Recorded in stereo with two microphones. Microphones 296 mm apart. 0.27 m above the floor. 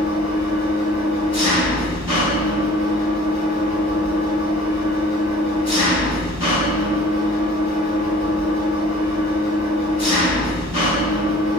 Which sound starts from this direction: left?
An engine running, at 0.0 s.